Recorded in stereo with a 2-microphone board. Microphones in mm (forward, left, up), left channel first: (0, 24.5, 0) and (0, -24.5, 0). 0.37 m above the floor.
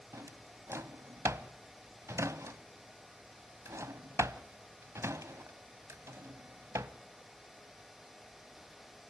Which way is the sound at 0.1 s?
85° right.